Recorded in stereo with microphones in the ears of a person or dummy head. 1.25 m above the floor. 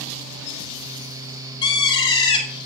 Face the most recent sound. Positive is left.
turn(degrees=25)  # may be behind; listen again after turning